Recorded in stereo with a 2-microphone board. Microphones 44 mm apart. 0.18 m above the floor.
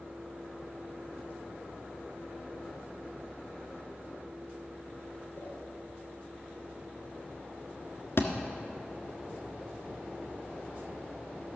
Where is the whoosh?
55° left (ahead or behind), 3.5 m.